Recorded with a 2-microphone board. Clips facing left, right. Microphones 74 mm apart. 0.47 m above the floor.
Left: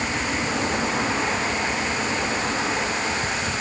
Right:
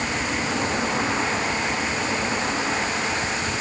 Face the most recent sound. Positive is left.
No sound to turn to.